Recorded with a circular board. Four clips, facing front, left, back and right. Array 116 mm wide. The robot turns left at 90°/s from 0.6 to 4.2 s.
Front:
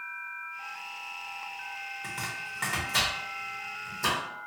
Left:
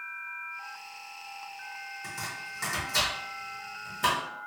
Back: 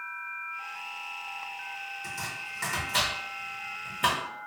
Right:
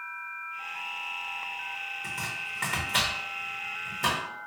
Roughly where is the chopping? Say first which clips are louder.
Right 1 dB, front 1 dB; ahead.